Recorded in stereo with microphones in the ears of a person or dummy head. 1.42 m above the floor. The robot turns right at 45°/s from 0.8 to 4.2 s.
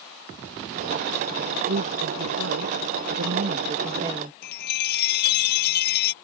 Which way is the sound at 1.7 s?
130° right.